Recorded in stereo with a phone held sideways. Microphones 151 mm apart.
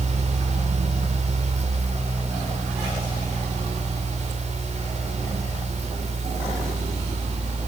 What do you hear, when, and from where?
0.0 s a fan: 45° right (ahead or behind), 5.5 m